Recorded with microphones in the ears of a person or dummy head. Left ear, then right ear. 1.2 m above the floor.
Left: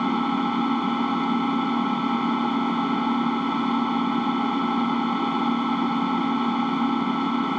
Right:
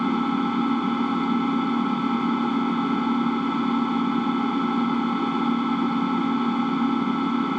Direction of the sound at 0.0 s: 15° left (ahead or behind).